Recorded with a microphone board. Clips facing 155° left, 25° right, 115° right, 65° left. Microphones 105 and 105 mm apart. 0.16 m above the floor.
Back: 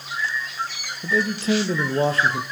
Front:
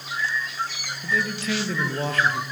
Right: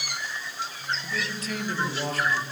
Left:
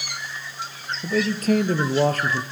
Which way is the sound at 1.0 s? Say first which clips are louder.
Back 5 dB, left 11 dB; 100° left.